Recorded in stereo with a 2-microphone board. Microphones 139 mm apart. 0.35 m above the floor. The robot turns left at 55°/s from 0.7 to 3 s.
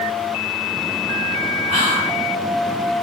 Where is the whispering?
15° right (ahead or behind), 1.3 m; by 2.2 s 20° right (ahead or behind), 1.3 m.